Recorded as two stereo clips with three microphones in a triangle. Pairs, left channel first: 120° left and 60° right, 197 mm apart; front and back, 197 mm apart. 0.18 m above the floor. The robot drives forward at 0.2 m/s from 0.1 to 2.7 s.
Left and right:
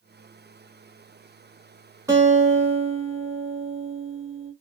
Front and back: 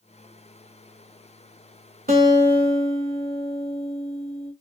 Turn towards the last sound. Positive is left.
turn(degrees=-140)